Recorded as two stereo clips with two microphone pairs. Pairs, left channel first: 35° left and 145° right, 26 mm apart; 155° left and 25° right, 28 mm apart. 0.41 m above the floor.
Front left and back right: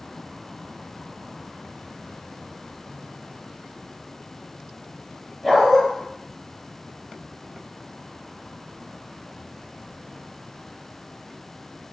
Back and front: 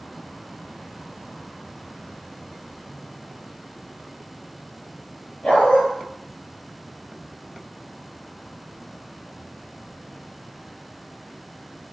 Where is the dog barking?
115° left, 1.8 m.